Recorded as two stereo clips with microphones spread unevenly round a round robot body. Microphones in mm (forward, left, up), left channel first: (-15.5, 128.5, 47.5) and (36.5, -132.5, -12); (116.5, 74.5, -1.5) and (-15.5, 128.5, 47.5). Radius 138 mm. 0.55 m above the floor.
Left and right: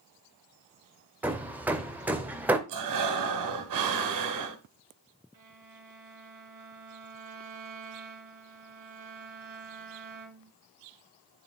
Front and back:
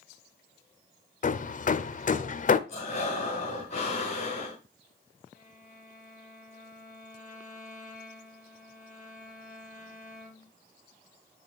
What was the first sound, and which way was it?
Hammering, 5° left.